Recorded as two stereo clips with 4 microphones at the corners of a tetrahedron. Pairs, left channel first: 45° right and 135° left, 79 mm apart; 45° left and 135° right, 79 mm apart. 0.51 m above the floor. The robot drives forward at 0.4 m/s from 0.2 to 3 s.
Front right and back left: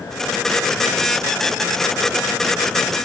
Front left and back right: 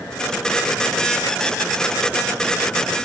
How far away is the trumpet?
I don't hear a trumpet.